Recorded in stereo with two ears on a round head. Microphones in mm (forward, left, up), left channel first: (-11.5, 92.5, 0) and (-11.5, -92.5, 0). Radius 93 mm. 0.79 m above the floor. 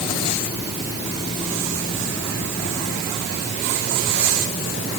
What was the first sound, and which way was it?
Only background noise.